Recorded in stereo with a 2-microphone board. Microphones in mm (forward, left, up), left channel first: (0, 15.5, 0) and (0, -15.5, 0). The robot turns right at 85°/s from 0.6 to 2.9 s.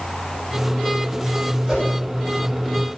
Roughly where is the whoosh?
Centre.